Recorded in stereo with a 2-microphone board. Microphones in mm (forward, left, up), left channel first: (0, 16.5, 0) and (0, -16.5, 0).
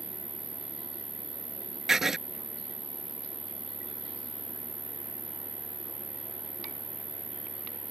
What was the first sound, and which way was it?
An insect, 55° left (ahead or behind).